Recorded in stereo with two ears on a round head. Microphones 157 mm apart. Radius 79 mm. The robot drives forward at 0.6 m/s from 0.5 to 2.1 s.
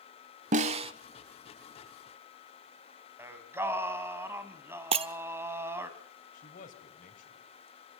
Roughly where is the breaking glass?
Right.